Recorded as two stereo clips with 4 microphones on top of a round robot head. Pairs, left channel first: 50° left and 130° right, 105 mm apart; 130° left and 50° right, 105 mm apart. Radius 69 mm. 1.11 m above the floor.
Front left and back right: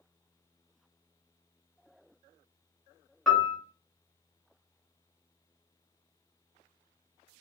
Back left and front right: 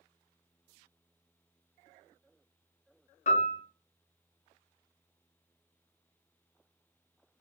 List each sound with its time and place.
3.3 s a piano: 135° left, 1.1 m